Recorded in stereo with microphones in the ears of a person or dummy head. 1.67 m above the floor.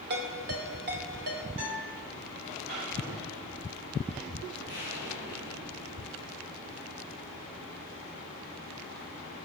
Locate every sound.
0.1 s a ringtone: 55° right (ahead or behind), 2.5 m
1.6 s a guitar: 65° right (ahead or behind), 6.5 m
3.0 s knocking: 20° right (ahead or behind), 6 m
4.7 s an explosion: 60° right (ahead or behind), 4.5 m